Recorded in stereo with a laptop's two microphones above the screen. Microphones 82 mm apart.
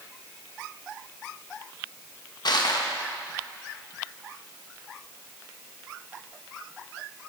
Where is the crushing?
60° left (ahead or behind), 0.9 m.